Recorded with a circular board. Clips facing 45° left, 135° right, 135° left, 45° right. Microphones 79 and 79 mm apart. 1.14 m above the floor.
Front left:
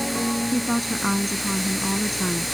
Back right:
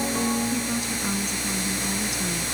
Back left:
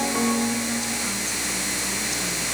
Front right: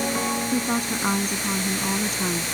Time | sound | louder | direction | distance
0.5 | a woman speaking | front left 4 dB, front right 3 dB | 5° right | ?